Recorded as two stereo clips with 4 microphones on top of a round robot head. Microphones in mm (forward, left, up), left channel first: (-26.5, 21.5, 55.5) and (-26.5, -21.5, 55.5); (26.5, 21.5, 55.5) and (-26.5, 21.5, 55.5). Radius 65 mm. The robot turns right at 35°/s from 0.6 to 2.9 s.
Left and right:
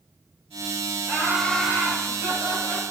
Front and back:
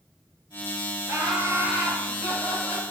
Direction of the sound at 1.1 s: 170° right.